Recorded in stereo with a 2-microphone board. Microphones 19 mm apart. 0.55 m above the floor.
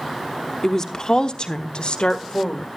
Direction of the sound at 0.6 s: 25° left (ahead or behind).